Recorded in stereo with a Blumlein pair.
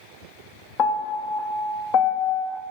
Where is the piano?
35° left, 0.6 m.